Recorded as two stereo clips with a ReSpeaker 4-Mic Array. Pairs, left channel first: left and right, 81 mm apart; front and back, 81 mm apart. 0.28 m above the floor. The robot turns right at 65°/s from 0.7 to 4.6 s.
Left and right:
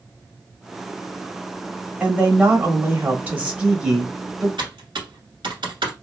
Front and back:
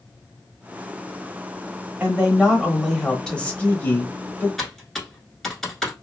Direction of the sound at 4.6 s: 90° right.